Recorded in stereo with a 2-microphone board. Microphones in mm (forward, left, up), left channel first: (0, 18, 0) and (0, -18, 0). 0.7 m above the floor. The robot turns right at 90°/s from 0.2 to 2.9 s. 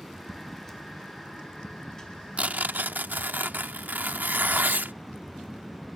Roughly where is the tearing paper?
Behind right.